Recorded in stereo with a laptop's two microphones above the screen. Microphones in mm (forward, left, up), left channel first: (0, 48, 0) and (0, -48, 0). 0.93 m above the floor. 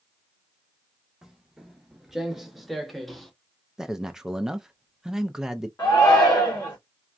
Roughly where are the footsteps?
Centre.